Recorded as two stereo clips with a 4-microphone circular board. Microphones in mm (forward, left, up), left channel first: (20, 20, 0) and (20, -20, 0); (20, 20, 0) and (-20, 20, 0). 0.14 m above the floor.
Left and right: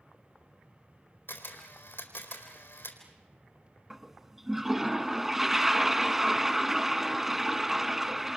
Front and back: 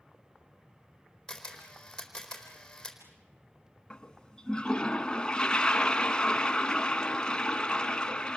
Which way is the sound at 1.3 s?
80° left.